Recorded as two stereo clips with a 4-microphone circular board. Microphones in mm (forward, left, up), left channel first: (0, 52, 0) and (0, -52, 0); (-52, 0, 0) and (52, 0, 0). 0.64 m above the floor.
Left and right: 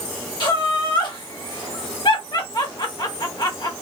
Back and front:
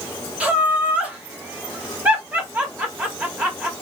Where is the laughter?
70° left, 1.4 m.